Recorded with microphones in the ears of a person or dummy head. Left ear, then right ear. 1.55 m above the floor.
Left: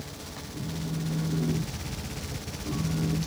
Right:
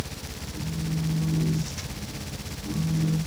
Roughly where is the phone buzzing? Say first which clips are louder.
Right 2 dB; left.